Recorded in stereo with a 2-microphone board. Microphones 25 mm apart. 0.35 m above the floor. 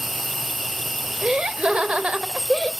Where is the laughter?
40° right (ahead or behind), 1.0 m.